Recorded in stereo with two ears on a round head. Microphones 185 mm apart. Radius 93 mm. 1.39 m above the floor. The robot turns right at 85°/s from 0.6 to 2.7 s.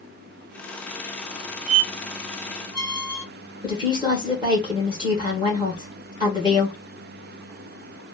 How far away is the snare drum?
No snare drum in this recording.